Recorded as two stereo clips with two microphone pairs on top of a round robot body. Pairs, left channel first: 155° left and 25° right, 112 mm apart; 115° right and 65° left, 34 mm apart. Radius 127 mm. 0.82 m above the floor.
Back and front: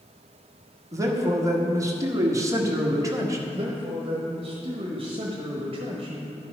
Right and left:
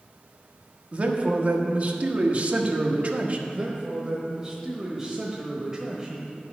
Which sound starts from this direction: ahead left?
A man speaking, at 0.9 s.